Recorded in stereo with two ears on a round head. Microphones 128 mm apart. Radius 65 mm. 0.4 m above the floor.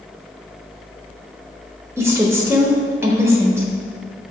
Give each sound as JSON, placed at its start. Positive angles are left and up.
{"t": 2.0, "sound": "a woman speaking", "side_deg": -20, "distance_m": 1.2}